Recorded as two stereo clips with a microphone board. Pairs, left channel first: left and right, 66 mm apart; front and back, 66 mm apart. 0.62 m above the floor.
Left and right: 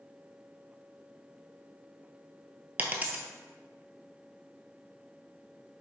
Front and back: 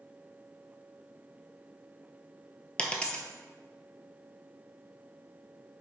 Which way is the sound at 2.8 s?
55° right.